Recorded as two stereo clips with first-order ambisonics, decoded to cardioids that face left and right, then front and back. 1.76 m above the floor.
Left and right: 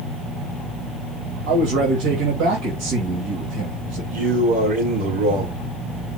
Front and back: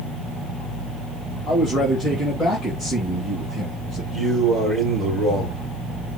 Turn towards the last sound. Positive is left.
turn(degrees=-105)